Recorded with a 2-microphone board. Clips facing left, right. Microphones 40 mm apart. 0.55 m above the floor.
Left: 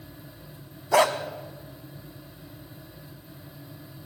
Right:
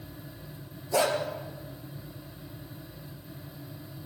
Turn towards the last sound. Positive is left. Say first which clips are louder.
# left 5 dB
turn(degrees=80)